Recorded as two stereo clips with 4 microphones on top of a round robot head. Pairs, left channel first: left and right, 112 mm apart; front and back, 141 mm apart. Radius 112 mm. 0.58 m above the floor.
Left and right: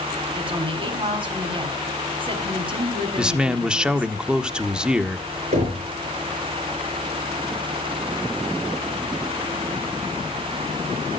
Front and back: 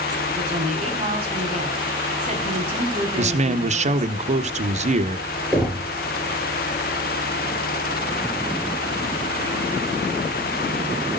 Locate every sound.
0.3 s a woman speaking: 125° right, 5 m
3.2 s a man speaking: 170° right, 1.6 m
5.5 s knocking: 90° right, 9.5 m